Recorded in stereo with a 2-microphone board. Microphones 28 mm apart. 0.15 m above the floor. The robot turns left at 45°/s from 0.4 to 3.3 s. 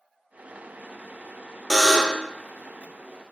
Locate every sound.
1.7 s a buzzer: centre (ahead or behind), 0.6 m; by 2.3 s 30° left (ahead or behind), 0.6 m